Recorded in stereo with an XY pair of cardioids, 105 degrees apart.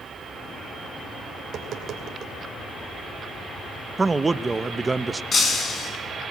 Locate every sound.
1.4 s tapping: 65° right, 2.5 m
4.0 s a man speaking: 25° right, 0.8 m
5.3 s breaking glass: 40° left, 6 m